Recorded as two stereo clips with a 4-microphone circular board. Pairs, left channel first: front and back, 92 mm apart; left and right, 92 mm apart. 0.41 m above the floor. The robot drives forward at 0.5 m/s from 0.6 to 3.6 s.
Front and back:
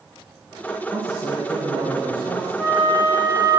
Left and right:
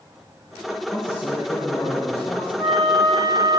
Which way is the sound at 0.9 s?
140° left.